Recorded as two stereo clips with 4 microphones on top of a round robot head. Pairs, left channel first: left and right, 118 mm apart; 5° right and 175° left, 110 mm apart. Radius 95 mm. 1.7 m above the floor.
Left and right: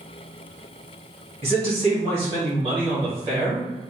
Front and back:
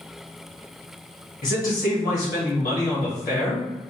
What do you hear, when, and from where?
1.4 s a man speaking: 35° right, 1.4 m